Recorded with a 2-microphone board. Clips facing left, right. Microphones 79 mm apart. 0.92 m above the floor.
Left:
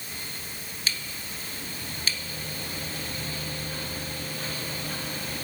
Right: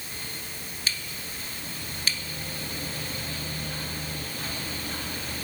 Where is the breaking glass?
No breaking glass in this recording.